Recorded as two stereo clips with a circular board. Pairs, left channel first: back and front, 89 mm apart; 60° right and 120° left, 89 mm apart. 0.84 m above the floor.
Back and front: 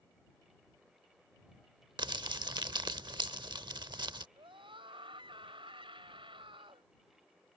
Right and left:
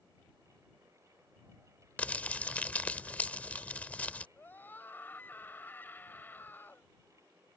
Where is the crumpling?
10° left.